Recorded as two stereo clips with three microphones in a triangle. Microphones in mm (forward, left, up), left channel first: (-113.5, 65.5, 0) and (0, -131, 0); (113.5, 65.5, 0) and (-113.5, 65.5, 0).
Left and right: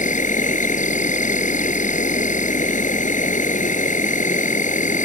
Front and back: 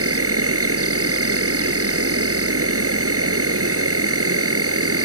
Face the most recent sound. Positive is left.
turn(degrees=175)